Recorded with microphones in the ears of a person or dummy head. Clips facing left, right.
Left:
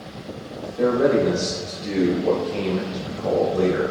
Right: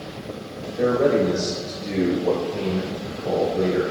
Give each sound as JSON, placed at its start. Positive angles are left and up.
{"t": 0.8, "sound": "a man speaking", "side_deg": 0, "distance_m": 1.5}